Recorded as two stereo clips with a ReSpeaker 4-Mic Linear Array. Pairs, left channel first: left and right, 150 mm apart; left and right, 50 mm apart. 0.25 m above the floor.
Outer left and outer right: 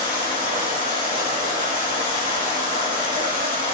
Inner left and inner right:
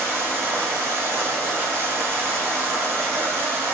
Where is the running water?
70° right (ahead or behind), 1.5 m.